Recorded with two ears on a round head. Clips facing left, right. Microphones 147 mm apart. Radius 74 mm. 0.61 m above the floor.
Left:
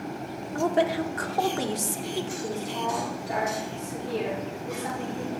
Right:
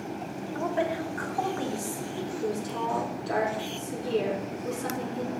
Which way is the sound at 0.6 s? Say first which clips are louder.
Left 5 dB; 45° left (ahead or behind).